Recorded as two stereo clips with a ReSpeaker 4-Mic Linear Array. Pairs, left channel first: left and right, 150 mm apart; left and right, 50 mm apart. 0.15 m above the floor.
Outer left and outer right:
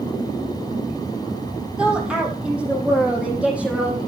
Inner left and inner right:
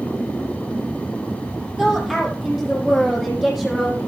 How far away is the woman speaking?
About 5 m.